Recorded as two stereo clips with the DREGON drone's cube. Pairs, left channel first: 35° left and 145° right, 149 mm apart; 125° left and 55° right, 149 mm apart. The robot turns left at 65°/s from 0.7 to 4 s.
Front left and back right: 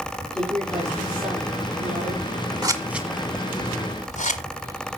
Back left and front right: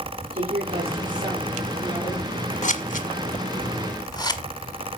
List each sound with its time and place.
0.3 s a woman speaking: 50° right, 7 m; by 2.2 s 145° right, 7 m
2.6 s scissors: 155° left, 1.5 m; by 4.4 s 65° left, 1.5 m